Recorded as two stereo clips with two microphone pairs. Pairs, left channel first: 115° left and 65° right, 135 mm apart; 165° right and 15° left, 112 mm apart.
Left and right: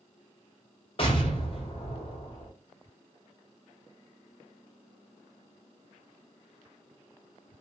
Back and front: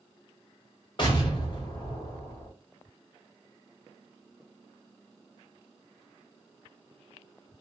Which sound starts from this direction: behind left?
An explosion, at 1.0 s.